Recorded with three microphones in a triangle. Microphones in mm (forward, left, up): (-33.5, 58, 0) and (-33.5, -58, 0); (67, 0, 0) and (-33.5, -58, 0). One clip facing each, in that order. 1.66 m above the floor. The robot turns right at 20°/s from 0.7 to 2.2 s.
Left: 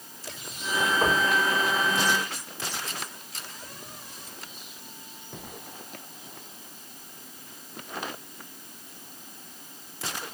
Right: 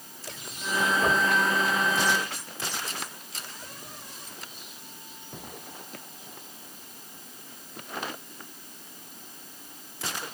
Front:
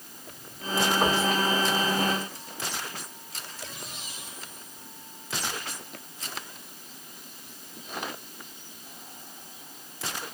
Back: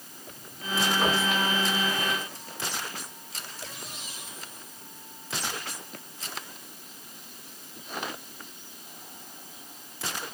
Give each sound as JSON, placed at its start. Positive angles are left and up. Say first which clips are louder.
{"t": 1.0, "sound": "knocking", "louder": "left 1 dB, front 1 dB", "azimuth_deg": 95, "distance_m": 6.0}